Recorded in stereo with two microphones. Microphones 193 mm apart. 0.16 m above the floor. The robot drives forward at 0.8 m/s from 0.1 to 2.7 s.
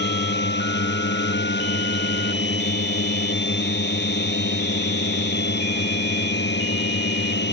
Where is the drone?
70° left (ahead or behind).